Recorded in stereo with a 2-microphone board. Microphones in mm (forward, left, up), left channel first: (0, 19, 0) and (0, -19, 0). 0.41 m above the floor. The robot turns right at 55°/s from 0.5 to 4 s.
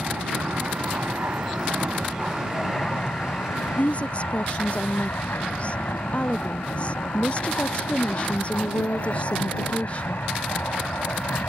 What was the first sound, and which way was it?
An aircraft, 50° right (ahead or behind).